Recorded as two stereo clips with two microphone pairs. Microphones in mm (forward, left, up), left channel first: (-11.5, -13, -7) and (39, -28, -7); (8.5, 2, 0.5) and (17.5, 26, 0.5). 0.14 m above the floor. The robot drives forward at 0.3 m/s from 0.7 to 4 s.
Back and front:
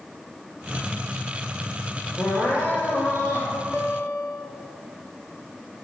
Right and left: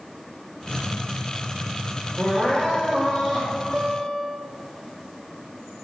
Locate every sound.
2.2 s crying: 150° right, 2.5 m; by 3.5 s 155° right, 3 m
3.7 s a guitar: 175° left, 0.7 m